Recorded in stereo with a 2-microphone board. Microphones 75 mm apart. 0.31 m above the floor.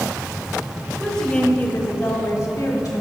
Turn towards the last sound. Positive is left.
turn(degrees=55)  # may be behind; listen again after turning